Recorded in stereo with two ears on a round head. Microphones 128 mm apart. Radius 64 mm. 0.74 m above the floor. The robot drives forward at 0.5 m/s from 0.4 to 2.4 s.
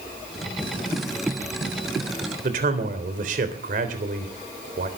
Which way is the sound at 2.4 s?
60° right (ahead or behind).